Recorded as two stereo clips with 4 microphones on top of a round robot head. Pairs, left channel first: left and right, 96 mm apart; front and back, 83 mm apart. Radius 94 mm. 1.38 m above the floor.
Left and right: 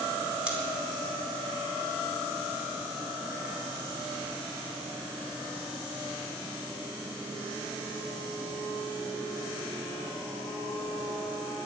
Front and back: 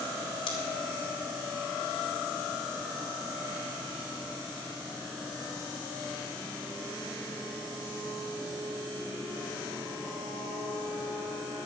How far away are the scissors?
About 3 m.